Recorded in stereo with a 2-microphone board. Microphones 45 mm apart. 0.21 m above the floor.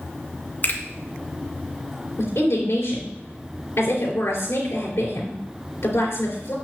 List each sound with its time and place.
0.6 s a finger snap: 40° left (ahead or behind), 1.9 m
2.2 s a woman speaking: 65° left (ahead or behind), 3 m